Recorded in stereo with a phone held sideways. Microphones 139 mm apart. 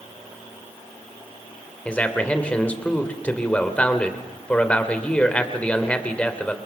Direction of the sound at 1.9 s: 10° left (ahead or behind).